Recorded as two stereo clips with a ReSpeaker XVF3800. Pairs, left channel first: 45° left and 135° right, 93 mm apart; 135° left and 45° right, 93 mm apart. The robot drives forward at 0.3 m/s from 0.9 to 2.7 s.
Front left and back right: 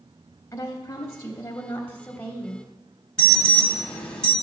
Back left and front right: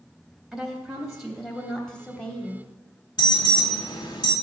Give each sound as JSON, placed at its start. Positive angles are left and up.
{"t": 0.5, "sound": "a woman speaking", "azimuth_deg": 35, "distance_m": 1.1}
{"t": 3.2, "sound": "an alarm", "azimuth_deg": 120, "distance_m": 1.3}